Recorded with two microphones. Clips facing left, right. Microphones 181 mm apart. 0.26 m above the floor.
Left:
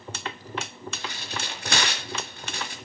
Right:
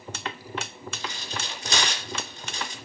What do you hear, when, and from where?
0.9 s tearing paper: 55° left (ahead or behind), 3.5 m